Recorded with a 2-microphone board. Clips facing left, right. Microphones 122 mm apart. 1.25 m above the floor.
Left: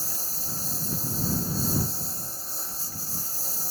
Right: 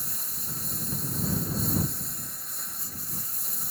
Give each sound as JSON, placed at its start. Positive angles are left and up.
{"t": 0.0, "sound": "a lawn mower", "side_deg": 30}